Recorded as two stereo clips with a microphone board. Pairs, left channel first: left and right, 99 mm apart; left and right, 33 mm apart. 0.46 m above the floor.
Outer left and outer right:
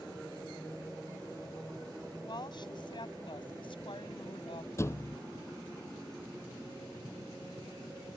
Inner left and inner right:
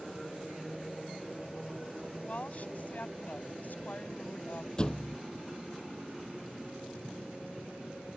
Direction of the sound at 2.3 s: 45° left (ahead or behind).